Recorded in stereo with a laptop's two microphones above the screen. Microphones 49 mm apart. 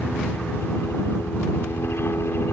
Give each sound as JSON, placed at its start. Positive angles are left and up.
{"t": 0.0, "sound": "a helicopter", "side_deg": 55}